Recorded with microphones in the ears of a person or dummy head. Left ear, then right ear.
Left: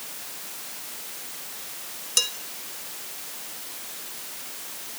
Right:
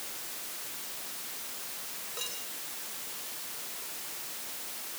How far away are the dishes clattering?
About 5 m.